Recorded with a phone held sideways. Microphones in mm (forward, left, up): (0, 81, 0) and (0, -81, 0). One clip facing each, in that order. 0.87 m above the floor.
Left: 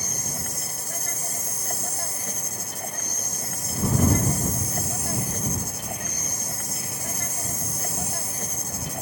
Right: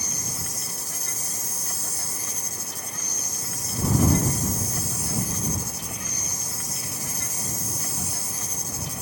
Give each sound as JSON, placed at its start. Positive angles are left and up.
{"t": 0.0, "sound": "an insect", "side_deg": 55}